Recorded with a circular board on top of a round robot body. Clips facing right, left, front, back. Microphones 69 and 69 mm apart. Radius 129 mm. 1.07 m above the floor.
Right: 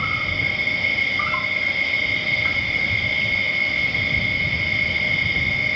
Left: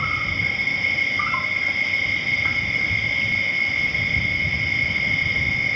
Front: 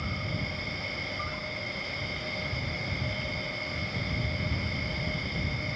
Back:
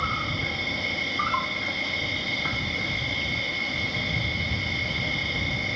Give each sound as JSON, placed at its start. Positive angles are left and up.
{"t": 0.0, "sound": "an insect", "azimuth_deg": 175}